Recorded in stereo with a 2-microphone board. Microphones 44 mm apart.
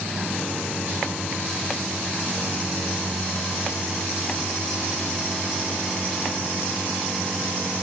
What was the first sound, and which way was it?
Only background noise.